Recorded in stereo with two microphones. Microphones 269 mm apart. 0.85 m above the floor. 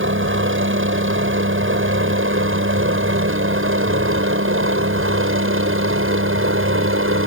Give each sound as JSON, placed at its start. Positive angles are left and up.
{"t": 0.0, "sound": "a helicopter", "side_deg": -50}